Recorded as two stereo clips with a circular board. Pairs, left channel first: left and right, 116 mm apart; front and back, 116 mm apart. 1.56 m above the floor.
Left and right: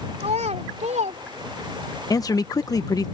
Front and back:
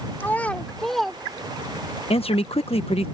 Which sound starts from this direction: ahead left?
A man speaking, at 2.1 s.